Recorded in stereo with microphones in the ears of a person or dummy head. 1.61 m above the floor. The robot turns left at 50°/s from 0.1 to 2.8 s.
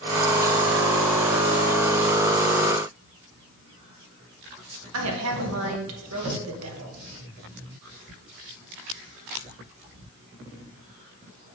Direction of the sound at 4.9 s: 85° right.